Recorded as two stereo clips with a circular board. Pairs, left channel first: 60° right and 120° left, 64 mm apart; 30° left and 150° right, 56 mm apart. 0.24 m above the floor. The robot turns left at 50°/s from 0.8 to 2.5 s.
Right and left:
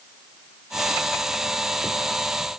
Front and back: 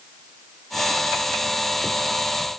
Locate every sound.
Only background noise.